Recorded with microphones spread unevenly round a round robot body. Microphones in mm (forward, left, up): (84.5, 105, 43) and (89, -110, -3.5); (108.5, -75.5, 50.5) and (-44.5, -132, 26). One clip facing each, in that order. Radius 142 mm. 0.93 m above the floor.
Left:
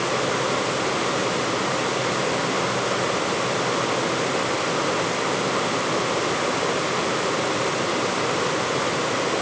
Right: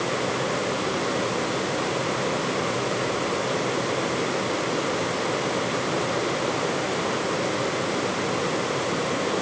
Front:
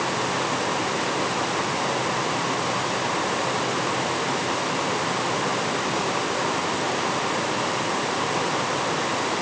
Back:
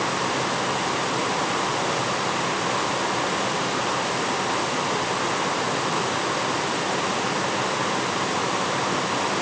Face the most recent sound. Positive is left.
No sound to turn to.